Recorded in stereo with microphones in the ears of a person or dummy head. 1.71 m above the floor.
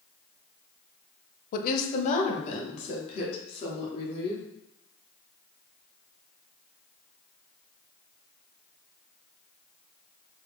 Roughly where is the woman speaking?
Left.